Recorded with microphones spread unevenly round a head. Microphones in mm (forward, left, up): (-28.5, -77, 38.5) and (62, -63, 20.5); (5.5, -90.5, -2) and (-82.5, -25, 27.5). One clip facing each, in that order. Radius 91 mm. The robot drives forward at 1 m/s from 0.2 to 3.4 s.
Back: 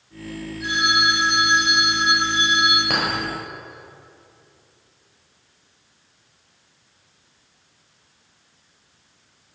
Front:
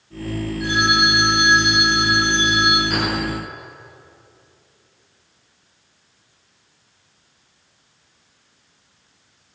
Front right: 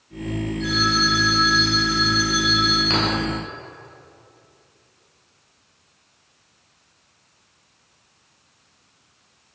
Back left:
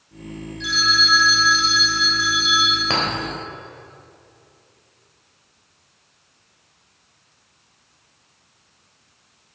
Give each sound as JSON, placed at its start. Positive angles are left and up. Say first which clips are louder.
{"t": 0.6, "sound": "a phone ringing", "louder": "front 2 dB, even", "azimuth_deg": 125, "distance_m": 3.0}
{"t": 2.9, "sound": "a clink", "louder": "front 1 dB, back left 2 dB", "azimuth_deg": 170, "distance_m": 3.5}